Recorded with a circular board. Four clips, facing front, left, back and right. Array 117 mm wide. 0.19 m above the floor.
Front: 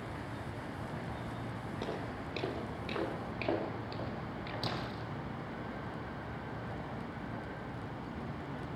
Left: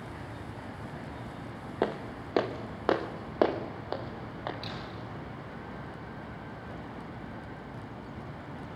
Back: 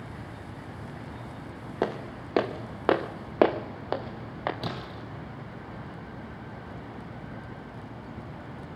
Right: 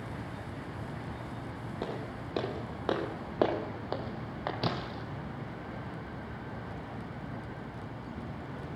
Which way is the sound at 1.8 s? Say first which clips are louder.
Left 7 dB, back 11 dB; 145° left.